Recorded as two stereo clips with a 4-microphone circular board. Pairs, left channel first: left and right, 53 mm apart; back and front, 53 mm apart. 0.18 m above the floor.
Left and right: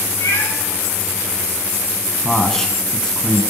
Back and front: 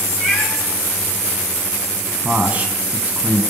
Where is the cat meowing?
80° left, 5 m.